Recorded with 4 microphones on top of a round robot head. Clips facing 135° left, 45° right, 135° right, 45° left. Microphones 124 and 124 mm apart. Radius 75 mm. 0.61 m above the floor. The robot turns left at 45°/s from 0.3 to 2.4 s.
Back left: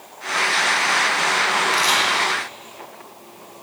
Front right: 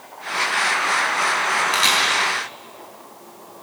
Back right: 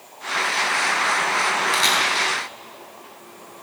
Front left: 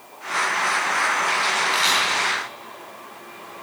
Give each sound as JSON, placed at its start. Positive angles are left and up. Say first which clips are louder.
{"t": 1.7, "sound": "a camera shutter", "louder": "back left 1 dB, back right 1 dB", "azimuth_deg": -100, "distance_m": 8.5}